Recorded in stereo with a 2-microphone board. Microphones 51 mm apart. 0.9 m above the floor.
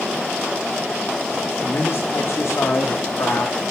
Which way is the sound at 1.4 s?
60° left (ahead or behind).